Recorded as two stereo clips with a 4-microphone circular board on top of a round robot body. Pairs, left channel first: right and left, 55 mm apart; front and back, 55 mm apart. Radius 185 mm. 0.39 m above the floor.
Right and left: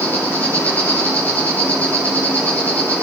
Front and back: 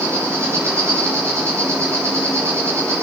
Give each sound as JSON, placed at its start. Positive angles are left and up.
{"t": 0.0, "sound": "an insect", "azimuth_deg": -150, "distance_m": 8.5}